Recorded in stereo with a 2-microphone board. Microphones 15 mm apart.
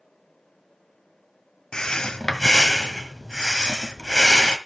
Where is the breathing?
50° left (ahead or behind), 1.3 m.